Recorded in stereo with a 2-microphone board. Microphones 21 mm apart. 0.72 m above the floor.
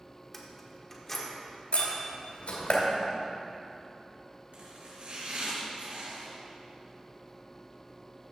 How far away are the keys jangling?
About 1.2 m.